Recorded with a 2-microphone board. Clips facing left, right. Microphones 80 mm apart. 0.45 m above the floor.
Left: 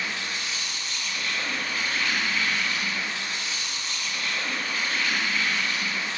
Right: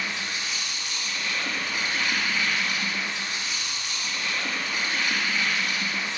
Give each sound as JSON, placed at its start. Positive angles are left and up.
{"t": 0.0, "sound": "an insect", "side_deg": -15, "distance_m": 1.4}